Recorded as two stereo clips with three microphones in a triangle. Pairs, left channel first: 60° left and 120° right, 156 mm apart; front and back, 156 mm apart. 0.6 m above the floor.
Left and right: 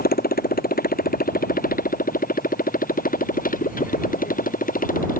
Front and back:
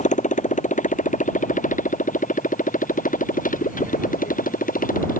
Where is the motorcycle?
40° left; by 5.2 s 30° left.